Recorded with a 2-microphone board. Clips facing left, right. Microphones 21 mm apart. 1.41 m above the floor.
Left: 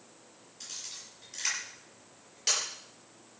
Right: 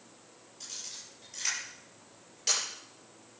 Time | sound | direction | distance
0.6 | a camera shutter | 15° left (ahead or behind) | 9 m